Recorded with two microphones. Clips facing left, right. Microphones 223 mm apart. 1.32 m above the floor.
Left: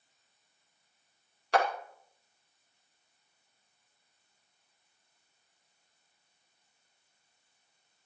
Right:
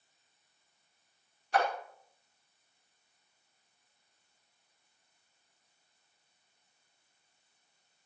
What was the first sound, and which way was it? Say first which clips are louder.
A clap: left 2 dB; 80° left.